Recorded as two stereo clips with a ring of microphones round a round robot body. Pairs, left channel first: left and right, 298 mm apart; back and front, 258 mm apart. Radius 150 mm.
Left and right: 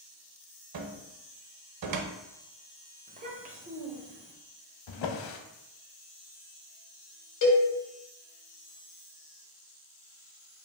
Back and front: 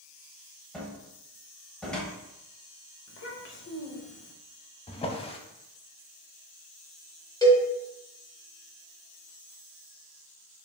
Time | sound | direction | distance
0.7 | a cupboard door | 95° right | 0.5 m
3.1 | a child speaking | 150° right | 0.7 m
4.9 | a drawer | 110° left | 0.6 m
7.4 | a cowbell | 105° left | 1.3 m